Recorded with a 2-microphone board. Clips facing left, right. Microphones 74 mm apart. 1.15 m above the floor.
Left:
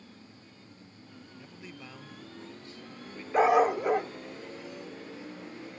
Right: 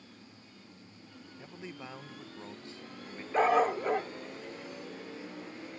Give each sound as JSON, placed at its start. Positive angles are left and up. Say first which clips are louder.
{"t": 1.4, "sound": "a man speaking", "louder": "right 4 dB", "side_deg": -25}
{"t": 3.3, "sound": "a dog barking", "louder": "left 3 dB", "side_deg": 10}